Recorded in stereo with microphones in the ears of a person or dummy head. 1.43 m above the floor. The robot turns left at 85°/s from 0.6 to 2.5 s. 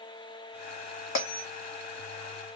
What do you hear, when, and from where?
1.1 s a bell: 50° left (ahead or behind), 0.8 m; by 1.4 s 60° left (ahead or behind), 0.8 m